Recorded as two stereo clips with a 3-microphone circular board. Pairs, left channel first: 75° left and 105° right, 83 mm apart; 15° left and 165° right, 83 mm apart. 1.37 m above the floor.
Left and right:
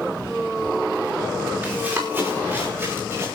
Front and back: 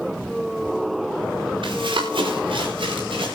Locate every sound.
1.6 s running footsteps: 170° right, 6 m; by 3.4 s 165° right, 8 m